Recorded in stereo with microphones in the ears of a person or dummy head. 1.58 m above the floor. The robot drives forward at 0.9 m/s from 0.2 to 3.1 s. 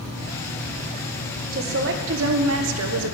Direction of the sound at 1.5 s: 55° right (ahead or behind).